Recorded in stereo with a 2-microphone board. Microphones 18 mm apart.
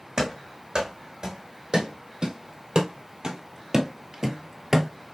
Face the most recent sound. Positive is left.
turn(degrees=-5)  # may be behind; listen again after turning